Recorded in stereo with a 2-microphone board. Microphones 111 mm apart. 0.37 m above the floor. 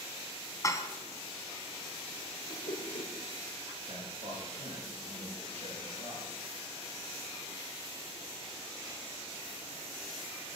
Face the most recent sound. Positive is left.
turn(degrees=-75)  # may be behind; listen again after turning